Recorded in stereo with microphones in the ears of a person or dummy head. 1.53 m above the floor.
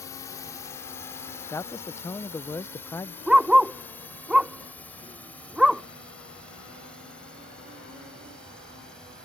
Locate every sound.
0.0 s a drone: 15° left (ahead or behind); by 9.2 s 5° left (ahead or behind)
1.5 s a man speaking: 15° left (ahead or behind)
3.3 s a dog barking: 5° right (ahead or behind)